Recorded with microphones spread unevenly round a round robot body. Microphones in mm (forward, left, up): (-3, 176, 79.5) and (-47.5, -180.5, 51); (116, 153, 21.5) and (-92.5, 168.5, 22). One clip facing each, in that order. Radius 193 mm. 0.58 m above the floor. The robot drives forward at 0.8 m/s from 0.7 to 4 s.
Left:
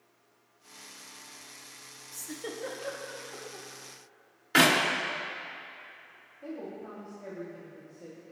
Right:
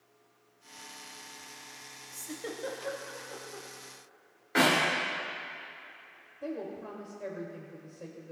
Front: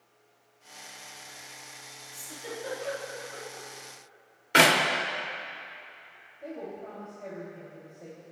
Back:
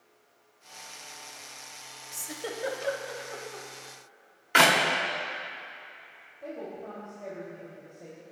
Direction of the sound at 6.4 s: 95° right.